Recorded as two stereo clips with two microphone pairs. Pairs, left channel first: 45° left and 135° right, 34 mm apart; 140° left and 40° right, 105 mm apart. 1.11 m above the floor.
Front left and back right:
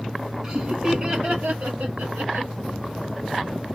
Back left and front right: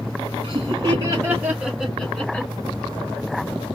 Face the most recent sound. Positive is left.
turn(degrees=-150)